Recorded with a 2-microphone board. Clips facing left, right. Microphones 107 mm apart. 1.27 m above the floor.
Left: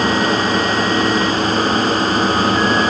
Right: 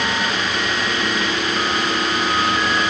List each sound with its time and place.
Only background noise.